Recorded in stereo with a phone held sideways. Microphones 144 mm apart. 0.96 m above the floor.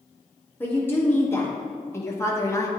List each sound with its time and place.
0.6 s a woman speaking: 15° left (ahead or behind), 2 m; by 2.7 s 20° left (ahead or behind), 1.0 m